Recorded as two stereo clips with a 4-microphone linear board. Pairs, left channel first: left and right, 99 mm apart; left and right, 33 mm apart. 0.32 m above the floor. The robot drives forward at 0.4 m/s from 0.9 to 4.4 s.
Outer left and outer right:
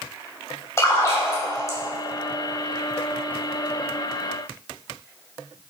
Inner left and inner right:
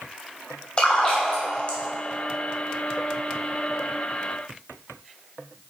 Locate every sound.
0.8 s a splash: 30° left (ahead or behind), 1.8 m